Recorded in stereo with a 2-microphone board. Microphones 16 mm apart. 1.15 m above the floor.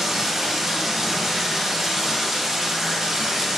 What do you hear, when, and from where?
0.0 s running water: 20° right (ahead or behind), 1.0 m